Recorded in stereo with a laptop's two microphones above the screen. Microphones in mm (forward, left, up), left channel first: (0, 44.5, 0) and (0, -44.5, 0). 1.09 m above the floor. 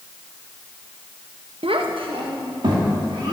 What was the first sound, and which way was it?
A child speaking, 85° right.